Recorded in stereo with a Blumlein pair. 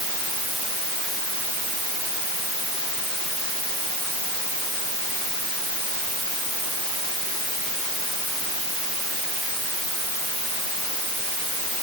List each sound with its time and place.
Only background noise.